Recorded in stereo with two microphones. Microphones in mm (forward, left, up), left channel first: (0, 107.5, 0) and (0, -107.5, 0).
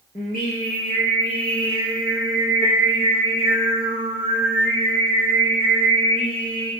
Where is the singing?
40° left (ahead or behind), 2 m.